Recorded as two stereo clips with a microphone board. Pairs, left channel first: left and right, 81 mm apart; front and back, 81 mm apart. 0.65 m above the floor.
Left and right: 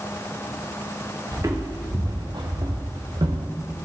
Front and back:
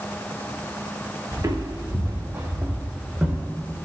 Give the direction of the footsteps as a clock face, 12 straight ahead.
5 o'clock.